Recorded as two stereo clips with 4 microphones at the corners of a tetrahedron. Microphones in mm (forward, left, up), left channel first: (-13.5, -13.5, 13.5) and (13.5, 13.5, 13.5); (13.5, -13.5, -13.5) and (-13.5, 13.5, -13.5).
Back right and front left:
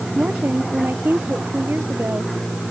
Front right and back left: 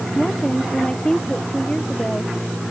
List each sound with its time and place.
0.1 s a woman speaking: 25° left